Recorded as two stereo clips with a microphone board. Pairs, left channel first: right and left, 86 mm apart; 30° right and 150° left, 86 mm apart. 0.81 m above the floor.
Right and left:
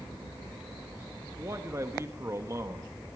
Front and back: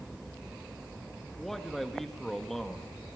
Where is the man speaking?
55° left, 1.3 m.